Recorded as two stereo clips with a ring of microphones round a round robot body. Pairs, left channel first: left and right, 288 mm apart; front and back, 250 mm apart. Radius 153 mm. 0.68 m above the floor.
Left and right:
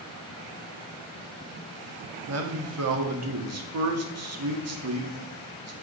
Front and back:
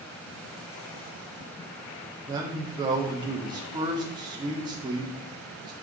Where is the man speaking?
110° right, 1.6 m.